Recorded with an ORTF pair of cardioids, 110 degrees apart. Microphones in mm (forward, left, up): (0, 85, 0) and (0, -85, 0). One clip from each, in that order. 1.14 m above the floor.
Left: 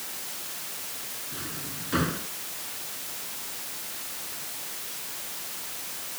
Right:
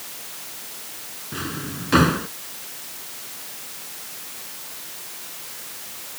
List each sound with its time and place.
1.3 s a drawer: 60° right